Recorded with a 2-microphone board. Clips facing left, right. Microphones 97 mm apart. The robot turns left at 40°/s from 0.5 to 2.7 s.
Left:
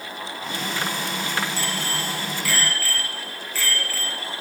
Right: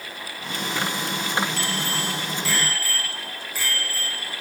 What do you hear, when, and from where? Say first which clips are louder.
1.6 s a bicycle bell: even; 120° right, 4.5 m; by 4.4 s 165° right, 4.5 m